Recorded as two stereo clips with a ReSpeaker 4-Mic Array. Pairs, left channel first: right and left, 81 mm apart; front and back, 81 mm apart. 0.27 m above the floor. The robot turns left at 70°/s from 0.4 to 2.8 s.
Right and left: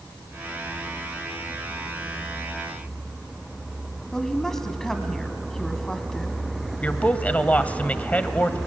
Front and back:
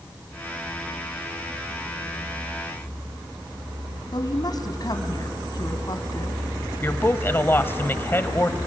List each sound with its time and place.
4.1 s a woman speaking: 10° right, 2 m
6.8 s a woman speaking: 35° right, 1.2 m